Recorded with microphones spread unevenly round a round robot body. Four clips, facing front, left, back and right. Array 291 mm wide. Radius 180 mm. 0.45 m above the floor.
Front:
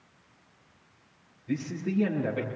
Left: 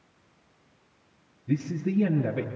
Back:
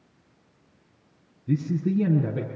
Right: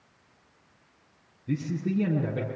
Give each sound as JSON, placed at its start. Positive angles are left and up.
{"t": 1.5, "sound": "a man speaking", "azimuth_deg": 180, "distance_m": 6.0}